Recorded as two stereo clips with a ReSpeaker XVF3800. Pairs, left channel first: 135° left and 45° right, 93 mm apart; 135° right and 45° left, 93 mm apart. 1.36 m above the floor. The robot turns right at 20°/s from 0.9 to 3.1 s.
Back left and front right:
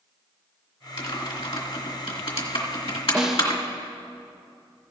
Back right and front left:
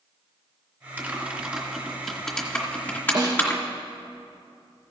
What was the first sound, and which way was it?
Typing on a keyboard, 110° left.